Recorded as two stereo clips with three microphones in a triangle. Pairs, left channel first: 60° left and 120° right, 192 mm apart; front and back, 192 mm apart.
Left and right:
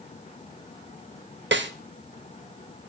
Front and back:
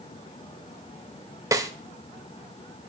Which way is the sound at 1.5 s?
110° right.